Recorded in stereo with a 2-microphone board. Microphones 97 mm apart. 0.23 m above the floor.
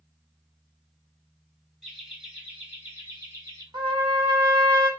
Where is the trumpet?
45° right (ahead or behind), 1.9 m.